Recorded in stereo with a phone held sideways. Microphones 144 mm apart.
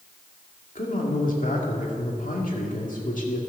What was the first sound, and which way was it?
A man speaking, 60° left (ahead or behind).